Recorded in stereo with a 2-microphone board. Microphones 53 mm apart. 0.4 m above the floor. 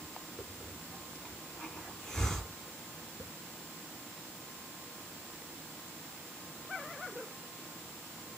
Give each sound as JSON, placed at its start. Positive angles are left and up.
{"t": 0.4, "sound": "a hiss", "side_deg": 10, "distance_m": 1.2}